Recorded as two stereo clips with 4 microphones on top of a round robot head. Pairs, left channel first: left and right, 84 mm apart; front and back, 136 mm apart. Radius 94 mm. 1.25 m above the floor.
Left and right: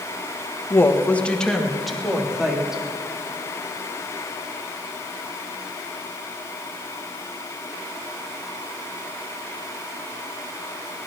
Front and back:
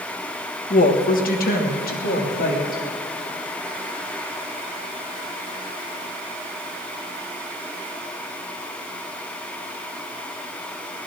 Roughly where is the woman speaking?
Ahead left.